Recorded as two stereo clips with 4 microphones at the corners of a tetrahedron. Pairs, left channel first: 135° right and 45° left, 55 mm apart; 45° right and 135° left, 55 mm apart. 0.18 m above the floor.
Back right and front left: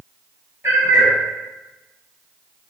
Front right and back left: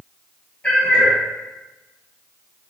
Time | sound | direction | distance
0.6 | a cat meowing | 20° left | 1.6 m